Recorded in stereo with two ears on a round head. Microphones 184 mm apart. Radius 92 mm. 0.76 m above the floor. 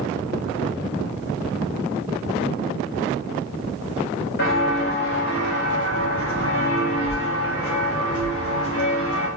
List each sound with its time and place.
4.4 s footsteps: 45° left (ahead or behind), 3.5 m; by 9.3 s 70° left (ahead or behind), 6 m